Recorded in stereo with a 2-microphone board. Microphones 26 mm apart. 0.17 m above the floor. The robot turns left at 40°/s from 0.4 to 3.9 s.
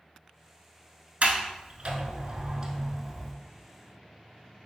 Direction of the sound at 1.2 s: 60° right (ahead or behind).